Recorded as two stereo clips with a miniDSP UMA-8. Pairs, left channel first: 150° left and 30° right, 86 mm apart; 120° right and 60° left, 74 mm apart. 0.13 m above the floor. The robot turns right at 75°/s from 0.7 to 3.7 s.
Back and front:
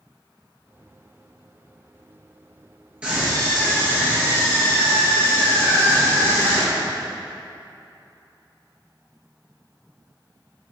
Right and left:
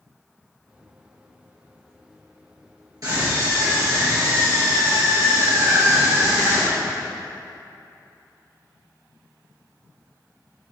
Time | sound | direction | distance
3.0 | a scream | 45° left | 2.5 m